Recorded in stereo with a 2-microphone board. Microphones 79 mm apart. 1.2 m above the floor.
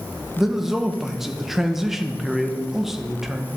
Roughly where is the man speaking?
Centre.